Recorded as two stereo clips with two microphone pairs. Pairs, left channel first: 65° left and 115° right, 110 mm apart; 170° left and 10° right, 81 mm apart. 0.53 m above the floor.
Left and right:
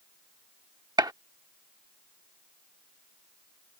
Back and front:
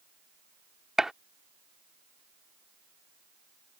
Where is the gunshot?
90° right.